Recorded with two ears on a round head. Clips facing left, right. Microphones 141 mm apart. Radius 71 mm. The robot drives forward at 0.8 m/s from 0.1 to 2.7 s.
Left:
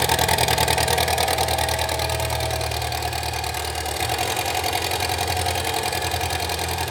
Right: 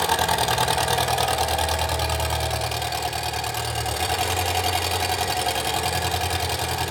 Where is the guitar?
No guitar in this recording.